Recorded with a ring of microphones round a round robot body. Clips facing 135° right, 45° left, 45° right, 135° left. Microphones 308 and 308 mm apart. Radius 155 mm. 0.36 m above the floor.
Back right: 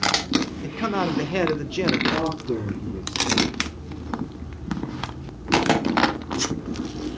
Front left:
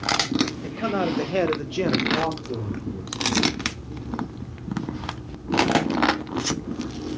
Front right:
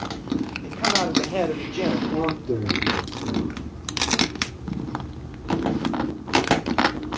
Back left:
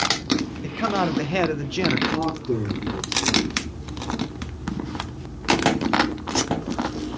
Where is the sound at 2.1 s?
150° right, 6 m.